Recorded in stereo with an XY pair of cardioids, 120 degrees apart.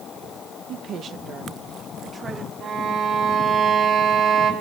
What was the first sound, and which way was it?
A woman speaking, 65° right.